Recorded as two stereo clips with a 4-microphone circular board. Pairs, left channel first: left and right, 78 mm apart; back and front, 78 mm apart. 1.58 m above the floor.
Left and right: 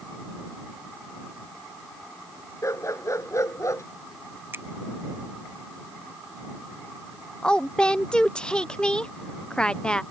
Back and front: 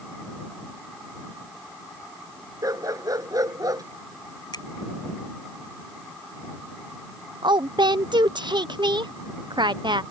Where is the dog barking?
40° left.